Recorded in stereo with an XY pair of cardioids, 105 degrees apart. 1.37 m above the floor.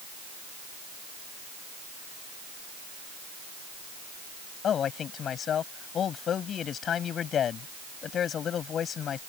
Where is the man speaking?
55° left.